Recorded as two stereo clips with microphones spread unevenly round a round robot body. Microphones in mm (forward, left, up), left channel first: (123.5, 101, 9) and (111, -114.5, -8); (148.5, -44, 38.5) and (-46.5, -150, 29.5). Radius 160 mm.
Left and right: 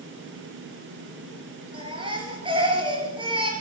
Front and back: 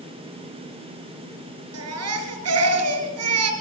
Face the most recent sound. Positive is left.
turn(degrees=-170)